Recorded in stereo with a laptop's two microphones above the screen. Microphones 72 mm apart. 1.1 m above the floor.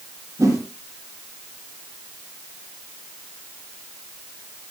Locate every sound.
0.4 s a whoosh: 45° right (ahead or behind), 9 m